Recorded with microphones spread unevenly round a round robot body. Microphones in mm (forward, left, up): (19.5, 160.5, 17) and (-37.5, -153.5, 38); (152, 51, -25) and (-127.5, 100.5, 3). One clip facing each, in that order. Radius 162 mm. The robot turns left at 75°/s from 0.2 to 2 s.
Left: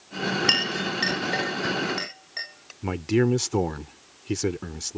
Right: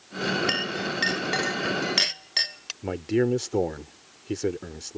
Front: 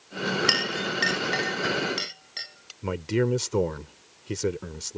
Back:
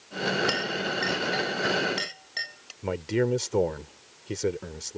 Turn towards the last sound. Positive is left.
turn(degrees=40)